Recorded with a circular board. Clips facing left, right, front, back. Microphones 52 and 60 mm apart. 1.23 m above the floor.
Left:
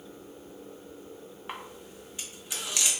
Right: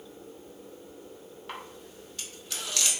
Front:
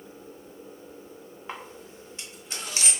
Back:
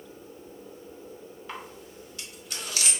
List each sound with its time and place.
1.5 s a camera shutter: 35° left, 0.6 m